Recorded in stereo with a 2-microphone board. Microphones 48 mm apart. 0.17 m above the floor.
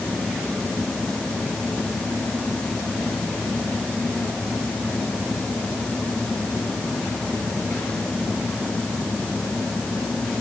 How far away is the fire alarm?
I don't hear a fire alarm.